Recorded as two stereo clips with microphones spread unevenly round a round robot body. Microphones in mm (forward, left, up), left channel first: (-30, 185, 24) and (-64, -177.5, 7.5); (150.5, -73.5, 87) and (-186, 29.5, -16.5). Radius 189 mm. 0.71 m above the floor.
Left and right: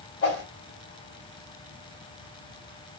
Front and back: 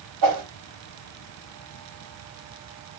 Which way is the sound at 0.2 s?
145° left.